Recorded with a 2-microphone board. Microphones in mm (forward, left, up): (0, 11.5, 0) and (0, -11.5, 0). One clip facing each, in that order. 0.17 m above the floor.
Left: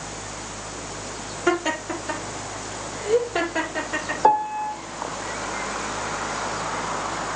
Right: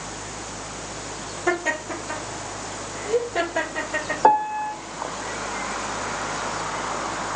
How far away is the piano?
About 1.0 m.